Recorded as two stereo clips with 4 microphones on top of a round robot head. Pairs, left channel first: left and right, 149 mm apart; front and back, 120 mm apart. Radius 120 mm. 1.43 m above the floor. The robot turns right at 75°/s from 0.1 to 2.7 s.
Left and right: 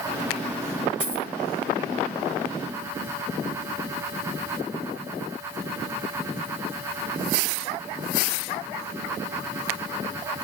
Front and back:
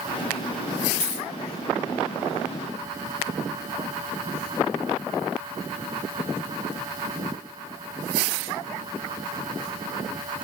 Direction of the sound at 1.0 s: 25° right.